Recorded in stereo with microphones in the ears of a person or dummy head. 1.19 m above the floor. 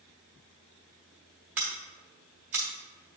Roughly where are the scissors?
Centre.